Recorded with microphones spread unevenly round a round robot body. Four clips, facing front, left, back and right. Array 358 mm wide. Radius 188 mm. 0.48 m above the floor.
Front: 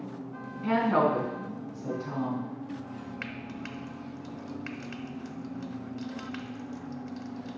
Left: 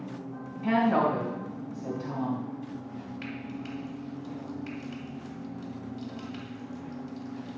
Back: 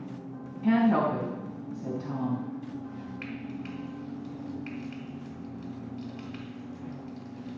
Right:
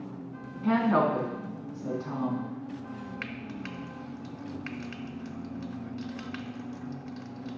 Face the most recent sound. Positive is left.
turn(degrees=-80)